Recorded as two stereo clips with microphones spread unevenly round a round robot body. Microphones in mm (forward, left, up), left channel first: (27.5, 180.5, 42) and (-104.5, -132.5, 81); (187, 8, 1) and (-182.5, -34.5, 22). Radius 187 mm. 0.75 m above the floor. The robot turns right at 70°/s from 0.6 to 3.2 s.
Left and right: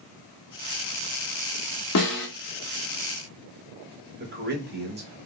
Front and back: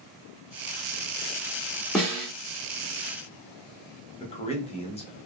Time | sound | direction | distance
1.9 | a snare drum | 90° left | 1.4 m
4.2 | a man speaking | 55° right | 0.8 m